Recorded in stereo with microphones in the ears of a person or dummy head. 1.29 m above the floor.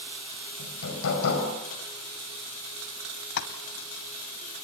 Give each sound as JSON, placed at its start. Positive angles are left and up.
{"t": 0.6, "sound": "hammering", "side_deg": 75, "distance_m": 5.5}
{"t": 3.4, "sound": "tapping", "side_deg": 55, "distance_m": 1.8}